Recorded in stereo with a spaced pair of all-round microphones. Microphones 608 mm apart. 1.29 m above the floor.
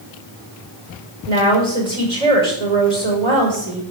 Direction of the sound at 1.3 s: 85° right.